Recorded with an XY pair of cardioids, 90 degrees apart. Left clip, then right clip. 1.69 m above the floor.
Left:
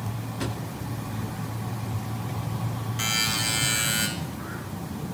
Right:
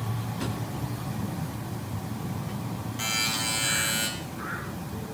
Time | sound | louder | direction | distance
0.4 | a drawer | left 2 dB | 25° left | 2.5 m
3.0 | a buzzer | left 2 dB | 35° left | 5 m